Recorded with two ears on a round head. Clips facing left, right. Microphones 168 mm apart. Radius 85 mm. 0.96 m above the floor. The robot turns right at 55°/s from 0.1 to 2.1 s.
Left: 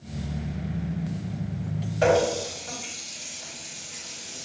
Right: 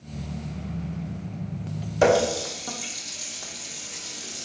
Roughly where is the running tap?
Right.